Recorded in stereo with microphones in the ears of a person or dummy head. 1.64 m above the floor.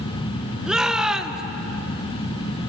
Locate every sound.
0.7 s a shout: 5° right (ahead or behind), 1.8 m